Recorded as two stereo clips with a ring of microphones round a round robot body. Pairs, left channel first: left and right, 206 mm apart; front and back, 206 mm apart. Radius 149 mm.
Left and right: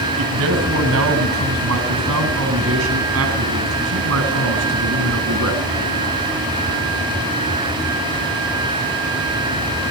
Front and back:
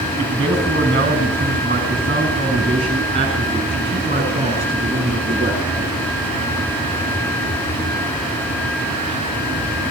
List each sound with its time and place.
0.2 s a man speaking: 105° right, 5.5 m; by 5.6 s 110° right, 9 m